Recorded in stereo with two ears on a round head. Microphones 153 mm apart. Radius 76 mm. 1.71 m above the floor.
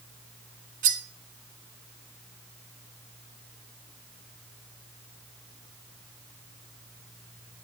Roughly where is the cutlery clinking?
Right.